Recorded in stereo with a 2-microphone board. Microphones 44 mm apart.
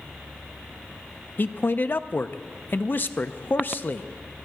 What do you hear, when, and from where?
1.4 s a man speaking: 50° left (ahead or behind), 0.6 m